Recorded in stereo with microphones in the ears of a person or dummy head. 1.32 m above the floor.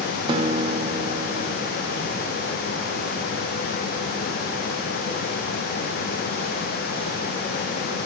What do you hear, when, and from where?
0.3 s a guitar: 35° right (ahead or behind), 0.9 m